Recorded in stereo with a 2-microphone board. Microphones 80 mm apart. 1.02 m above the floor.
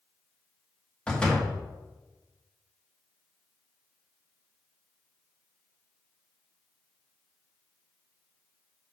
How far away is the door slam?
About 1.4 m.